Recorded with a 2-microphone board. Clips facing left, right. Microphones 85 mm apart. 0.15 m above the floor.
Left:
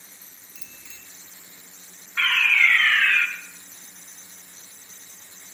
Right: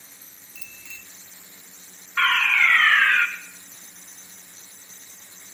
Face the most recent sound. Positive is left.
turn(degrees=-45)  # may be behind; listen again after turning